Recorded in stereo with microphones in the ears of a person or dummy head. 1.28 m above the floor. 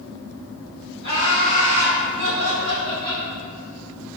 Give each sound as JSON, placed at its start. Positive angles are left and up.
{"t": 1.0, "sound": "laughter", "side_deg": -30, "distance_m": 1.3}